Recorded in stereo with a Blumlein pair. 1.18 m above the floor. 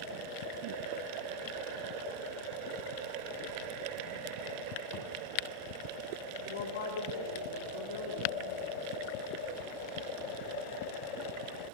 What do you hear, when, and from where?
4.9 s a thud: 45° left, 8 m
6.5 s a woman speaking: 60° left, 4 m